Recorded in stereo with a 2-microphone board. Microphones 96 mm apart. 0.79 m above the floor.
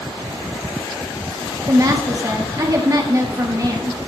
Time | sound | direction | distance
1.7 | a woman speaking | 40° right (ahead or behind) | 1.3 m